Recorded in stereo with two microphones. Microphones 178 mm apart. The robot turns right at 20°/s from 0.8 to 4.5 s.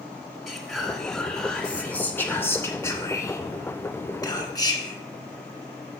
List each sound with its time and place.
0.5 s whispering: centre (ahead or behind), 1.5 m; by 5.0 s 20° left (ahead or behind), 1.5 m